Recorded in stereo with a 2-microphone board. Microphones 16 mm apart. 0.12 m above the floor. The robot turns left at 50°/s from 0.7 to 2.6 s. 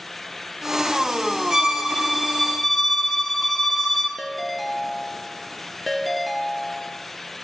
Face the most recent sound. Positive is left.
turn(degrees=0)  # may be behind; listen again after turning